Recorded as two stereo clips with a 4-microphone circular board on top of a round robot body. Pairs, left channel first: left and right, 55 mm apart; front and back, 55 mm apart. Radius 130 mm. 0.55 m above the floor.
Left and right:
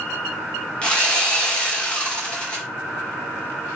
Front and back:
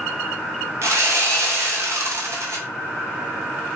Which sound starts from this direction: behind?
Sawing, at 0.8 s.